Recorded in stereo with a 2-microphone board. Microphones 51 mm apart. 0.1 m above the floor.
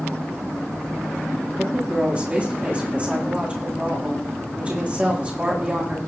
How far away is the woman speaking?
About 7 m.